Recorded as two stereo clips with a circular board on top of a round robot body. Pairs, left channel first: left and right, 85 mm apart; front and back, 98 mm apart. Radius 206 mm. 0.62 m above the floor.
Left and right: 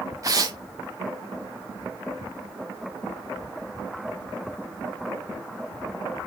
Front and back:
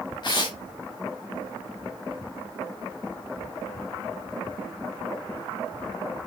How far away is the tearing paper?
About 0.5 m.